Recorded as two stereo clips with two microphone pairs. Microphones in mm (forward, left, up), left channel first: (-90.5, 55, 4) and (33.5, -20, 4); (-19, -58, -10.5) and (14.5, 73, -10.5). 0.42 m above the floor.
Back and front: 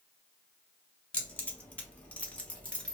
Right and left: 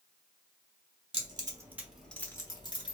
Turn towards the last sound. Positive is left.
turn(degrees=-135)